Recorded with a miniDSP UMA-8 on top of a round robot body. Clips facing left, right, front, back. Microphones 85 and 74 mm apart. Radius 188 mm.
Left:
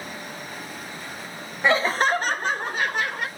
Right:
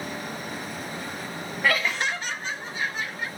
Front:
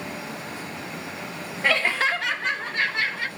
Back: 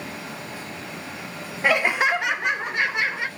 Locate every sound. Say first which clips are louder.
1.6 s laughter: left 5 dB, back 3 dB; 125° left, 0.8 m; by 3.3 s 110° left, 2.0 m